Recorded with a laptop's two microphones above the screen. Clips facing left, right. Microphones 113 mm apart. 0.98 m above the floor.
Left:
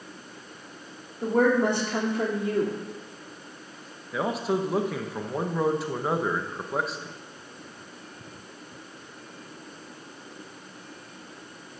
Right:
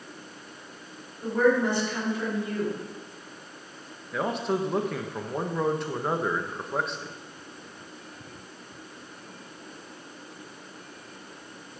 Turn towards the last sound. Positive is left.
turn(degrees=5)  # may be behind; listen again after turning